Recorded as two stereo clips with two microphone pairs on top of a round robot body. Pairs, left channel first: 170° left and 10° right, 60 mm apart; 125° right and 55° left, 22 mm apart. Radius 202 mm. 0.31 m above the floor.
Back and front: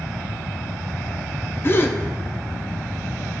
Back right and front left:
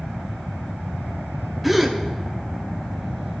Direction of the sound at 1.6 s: 150° left.